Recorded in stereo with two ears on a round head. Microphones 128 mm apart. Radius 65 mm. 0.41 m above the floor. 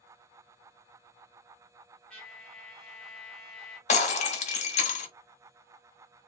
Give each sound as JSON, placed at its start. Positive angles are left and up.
{"t": 2.1, "sound": "a trumpet", "side_deg": 5, "distance_m": 1.4}
{"t": 3.9, "sound": "breaking glass", "side_deg": 55, "distance_m": 1.0}